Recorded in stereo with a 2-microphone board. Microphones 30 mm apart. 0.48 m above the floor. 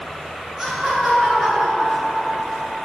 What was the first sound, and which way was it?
Laughter, 15° right (ahead or behind).